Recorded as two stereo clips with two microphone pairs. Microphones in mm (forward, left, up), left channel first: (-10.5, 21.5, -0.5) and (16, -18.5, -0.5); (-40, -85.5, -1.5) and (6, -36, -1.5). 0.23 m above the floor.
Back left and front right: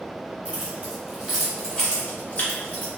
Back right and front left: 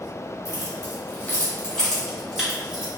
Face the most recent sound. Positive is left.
turn(degrees=120)